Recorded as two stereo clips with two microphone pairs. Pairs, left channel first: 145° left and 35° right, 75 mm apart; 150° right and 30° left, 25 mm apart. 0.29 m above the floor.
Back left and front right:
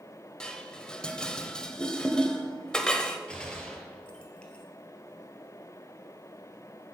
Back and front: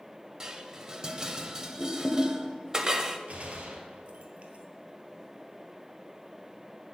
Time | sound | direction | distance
0.4 | dishes clattering | 65° left | 0.6 m
3.3 | a gunshot | 65° left | 1.1 m